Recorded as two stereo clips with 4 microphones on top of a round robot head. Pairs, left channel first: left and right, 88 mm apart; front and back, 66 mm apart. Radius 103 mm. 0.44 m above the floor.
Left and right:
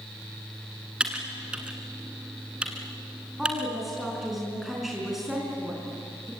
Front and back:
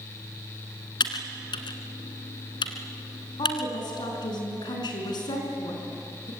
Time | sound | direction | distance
1.0 | typing on a keyboard | 10° right | 1.5 m
3.4 | a woman speaking | straight ahead | 5.5 m